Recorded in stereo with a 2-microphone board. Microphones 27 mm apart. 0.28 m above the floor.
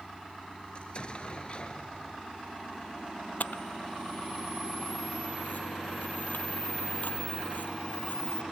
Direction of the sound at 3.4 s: 80° left.